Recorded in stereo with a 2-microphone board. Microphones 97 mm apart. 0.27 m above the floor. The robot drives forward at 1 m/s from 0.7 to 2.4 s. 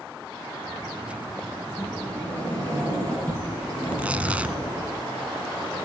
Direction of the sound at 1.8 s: 15° left (ahead or behind).